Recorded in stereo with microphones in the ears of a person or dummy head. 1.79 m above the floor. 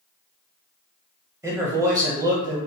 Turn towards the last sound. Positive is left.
turn(degrees=-20)  # may be behind; listen again after turning